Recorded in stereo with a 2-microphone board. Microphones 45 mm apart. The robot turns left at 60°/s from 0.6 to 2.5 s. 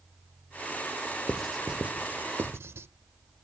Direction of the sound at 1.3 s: 10° left (ahead or behind).